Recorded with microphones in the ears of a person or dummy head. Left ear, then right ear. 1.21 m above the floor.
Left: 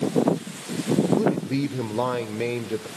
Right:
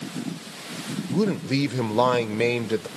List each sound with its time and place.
1.1 s a man speaking: 40° right (ahead or behind), 0.6 m